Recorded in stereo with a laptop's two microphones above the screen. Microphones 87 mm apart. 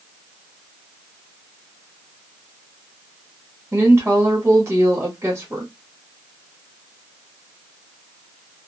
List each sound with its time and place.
3.7 s a woman speaking: 35° right (ahead or behind), 1.2 m